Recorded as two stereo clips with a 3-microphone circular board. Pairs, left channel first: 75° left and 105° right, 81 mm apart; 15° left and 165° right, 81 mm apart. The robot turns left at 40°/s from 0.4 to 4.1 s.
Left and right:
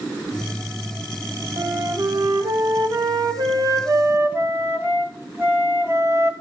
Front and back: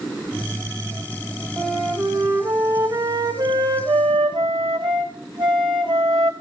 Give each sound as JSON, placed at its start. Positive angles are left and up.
{"t": 1.6, "sound": "a flute", "azimuth_deg": -65, "distance_m": 2.5}